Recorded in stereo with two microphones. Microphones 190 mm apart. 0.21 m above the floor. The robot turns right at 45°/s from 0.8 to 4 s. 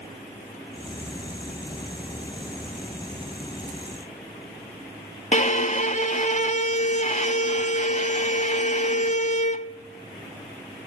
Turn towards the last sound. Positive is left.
turn(degrees=40)  # may be behind; listen again after turning